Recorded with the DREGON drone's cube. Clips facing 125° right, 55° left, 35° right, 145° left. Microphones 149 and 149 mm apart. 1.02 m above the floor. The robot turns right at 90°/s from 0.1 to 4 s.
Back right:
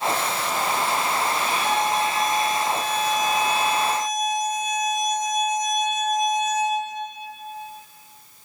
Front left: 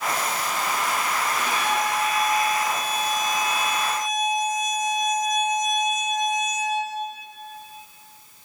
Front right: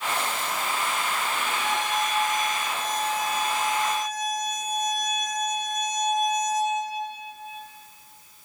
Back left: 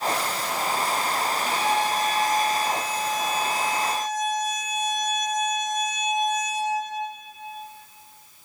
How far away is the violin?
About 2.5 m.